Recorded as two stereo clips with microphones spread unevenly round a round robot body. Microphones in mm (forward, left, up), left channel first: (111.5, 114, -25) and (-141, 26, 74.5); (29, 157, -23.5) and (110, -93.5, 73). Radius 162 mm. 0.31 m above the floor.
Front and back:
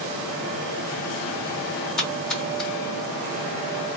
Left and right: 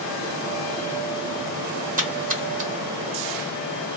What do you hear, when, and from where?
2.0 s a splash: 5° right, 1.3 m